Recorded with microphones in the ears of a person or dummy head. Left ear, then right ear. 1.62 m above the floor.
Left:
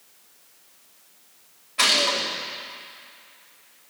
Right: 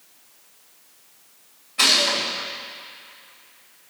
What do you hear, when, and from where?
1.8 s a gunshot: 20° left (ahead or behind), 3.5 m